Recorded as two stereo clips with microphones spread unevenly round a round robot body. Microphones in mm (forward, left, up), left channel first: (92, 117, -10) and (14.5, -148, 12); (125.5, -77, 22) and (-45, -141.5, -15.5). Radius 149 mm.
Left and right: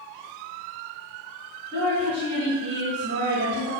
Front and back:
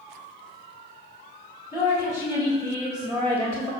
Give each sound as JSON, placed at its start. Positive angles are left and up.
{"t": 1.7, "sound": "a woman speaking", "azimuth_deg": -55, "distance_m": 2.0}